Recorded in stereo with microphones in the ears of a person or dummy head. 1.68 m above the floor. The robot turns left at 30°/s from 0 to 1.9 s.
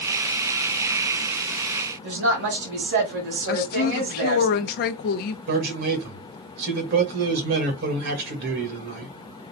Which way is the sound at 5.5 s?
50° right (ahead or behind).